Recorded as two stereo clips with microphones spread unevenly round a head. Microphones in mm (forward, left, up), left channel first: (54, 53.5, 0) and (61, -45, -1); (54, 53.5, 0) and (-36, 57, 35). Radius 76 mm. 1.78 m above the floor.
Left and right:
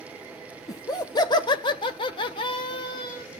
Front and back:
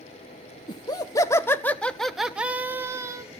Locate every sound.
0.7 s laughter: 50° left, 1.1 m; by 3.2 s 150° left, 1.3 m